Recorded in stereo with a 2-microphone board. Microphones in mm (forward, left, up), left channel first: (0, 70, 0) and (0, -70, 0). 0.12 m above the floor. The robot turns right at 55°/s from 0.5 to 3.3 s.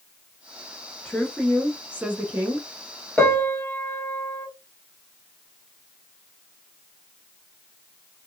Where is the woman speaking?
10° left (ahead or behind), 1.0 m; by 2.7 s 15° right (ahead or behind), 1.0 m.